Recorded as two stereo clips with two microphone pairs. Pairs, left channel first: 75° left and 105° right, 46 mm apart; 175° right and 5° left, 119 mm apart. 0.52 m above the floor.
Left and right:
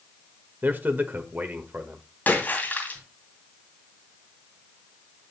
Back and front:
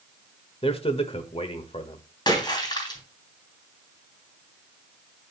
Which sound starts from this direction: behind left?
A splash, at 2.3 s.